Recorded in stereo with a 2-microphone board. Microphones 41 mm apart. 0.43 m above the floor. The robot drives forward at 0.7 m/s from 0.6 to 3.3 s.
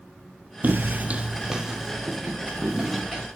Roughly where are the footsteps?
Right.